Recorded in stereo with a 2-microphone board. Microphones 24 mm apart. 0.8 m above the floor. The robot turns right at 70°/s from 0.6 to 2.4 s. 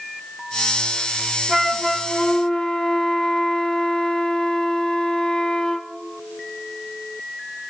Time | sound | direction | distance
1.5 | a flute | 15° right | 1.1 m